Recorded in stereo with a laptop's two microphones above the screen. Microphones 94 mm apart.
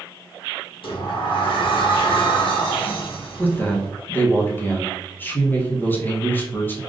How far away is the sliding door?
About 0.8 m.